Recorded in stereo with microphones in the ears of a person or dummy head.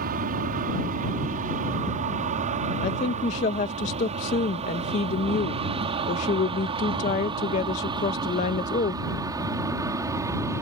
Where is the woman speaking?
40° left (ahead or behind).